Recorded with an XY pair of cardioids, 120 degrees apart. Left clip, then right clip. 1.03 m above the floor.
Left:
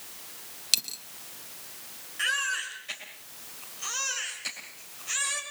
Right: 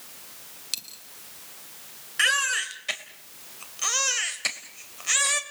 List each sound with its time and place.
0.7 s a dropped coin: 40° left, 1.2 m
2.2 s a baby crying: 65° right, 2.5 m